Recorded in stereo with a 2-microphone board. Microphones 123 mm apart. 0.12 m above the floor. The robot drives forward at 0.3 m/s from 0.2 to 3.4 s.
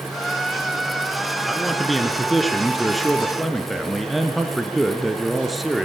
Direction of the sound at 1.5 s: Centre (ahead or behind).